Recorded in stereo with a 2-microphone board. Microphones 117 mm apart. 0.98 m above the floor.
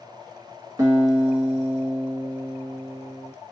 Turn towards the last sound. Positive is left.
turn(degrees=-35)  # may be behind; listen again after turning